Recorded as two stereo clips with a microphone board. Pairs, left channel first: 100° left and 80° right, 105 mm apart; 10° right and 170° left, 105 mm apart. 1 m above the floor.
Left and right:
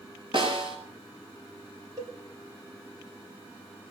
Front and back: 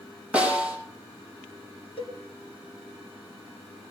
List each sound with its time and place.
0.3 s a snare drum: 115° right, 6.5 m
2.0 s a cowbell: 35° right, 3 m